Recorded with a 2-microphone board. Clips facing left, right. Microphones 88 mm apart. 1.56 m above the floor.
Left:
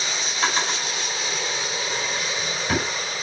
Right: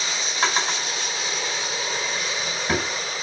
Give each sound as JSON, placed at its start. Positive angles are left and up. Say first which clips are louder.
{"t": 0.4, "sound": "a drawer", "louder": "right 1 dB", "side_deg": -35, "distance_m": 4.5}